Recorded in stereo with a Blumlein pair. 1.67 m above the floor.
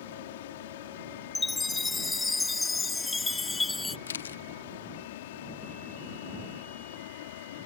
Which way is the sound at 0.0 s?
55° left.